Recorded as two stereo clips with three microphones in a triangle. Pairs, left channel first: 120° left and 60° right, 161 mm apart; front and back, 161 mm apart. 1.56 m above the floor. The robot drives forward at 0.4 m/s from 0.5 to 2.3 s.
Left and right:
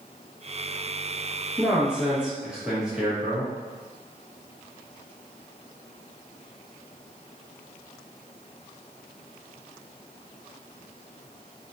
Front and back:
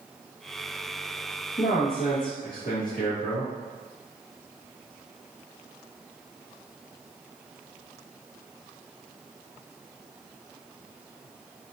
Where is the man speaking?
20° left, 1.8 m; by 3.5 s 25° left, 1.6 m.